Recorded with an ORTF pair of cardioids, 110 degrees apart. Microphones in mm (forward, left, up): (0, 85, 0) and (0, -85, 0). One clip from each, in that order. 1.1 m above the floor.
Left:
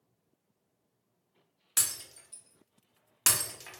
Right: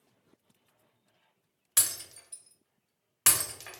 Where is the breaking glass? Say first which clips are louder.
Right 1 dB; 10° right, 0.7 m.